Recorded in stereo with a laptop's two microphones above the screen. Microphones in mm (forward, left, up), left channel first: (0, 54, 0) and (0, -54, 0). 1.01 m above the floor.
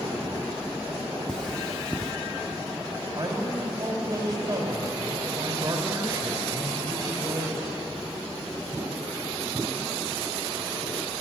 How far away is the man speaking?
About 4.5 m.